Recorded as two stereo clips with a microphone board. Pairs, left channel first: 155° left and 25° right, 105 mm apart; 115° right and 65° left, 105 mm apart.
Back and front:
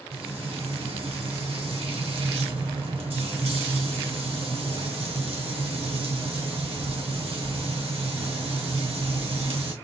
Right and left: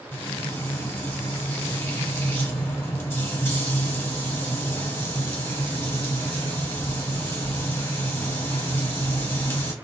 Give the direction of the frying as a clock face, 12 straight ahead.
1 o'clock.